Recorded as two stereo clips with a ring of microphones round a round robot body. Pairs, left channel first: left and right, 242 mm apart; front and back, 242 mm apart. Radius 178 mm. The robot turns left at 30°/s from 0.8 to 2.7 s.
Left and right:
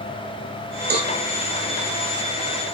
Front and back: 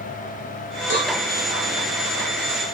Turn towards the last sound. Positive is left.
turn(degrees=-100)